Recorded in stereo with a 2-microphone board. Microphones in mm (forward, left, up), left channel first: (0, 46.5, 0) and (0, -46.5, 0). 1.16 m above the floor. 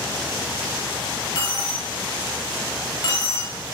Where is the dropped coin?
50° left (ahead or behind), 2.5 m.